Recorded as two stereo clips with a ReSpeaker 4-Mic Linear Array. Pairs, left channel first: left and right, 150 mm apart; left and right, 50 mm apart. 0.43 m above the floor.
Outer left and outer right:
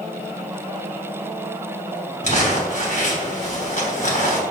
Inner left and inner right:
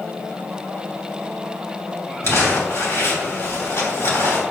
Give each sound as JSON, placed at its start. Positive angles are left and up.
{"t": 2.2, "sound": "crumpling", "side_deg": 65, "distance_m": 3.0}